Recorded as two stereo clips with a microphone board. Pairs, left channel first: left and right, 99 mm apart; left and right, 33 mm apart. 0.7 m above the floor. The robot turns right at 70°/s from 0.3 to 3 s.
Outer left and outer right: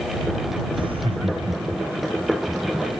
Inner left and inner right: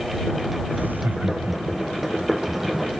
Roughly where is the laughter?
Behind right.